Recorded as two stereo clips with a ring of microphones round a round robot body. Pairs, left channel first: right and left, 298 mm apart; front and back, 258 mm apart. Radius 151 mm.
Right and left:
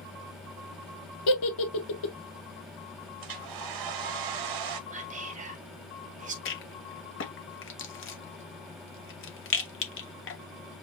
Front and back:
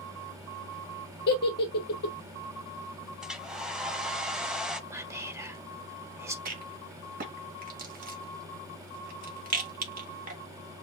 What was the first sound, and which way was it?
A giggle, 60° right.